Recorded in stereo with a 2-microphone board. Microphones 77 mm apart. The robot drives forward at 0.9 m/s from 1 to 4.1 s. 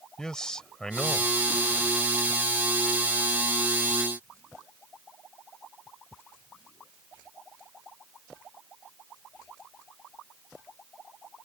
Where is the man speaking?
10° left (ahead or behind); by 2.0 s 5° left (ahead or behind).